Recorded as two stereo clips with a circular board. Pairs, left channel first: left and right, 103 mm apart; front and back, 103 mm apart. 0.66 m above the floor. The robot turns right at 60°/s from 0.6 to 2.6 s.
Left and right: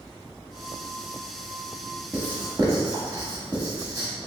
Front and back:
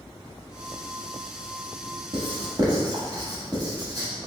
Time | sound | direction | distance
2.1 | writing | 165° right | 0.8 m